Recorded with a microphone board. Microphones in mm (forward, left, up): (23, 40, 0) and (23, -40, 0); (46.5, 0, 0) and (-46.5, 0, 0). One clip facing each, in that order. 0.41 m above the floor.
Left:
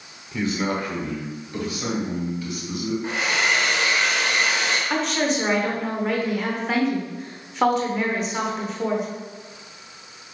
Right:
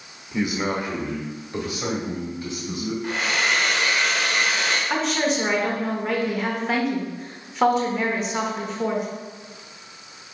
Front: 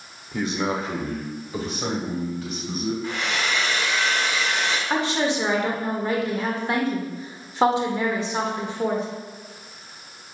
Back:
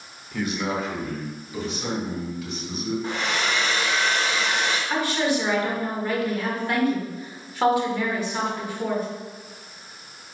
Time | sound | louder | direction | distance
0.3 | a man speaking | even, front 1 dB | 35° right | 0.8 m
3.0 | a hair dryer | even, back 1 dB | 145° left | 1.1 m
4.9 | a woman speaking | even, front 1 dB | 5° right | 0.8 m